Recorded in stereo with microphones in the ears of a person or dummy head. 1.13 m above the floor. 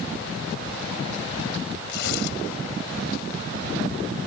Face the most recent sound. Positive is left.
turn(degrees=70)  # may be behind; listen again after turning